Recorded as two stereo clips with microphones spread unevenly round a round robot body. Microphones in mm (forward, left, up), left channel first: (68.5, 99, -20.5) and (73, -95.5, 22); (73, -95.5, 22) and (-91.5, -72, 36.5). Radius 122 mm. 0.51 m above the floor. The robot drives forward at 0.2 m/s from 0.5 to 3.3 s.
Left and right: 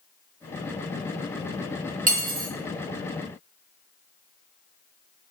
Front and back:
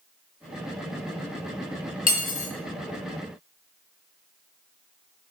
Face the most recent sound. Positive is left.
turn(degrees=-60)